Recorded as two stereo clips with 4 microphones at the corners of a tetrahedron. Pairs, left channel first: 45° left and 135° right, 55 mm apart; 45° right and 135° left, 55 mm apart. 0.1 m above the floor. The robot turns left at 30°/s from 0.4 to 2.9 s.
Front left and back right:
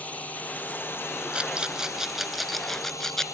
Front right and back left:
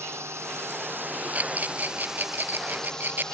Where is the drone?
105° left; by 3.3 s 30° left.